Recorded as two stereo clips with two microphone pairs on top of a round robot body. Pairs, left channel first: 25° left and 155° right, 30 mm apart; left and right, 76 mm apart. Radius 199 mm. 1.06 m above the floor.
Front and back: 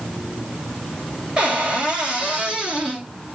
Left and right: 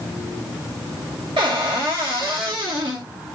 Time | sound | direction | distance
1.4 | a cupboard door | 85° right | 2 m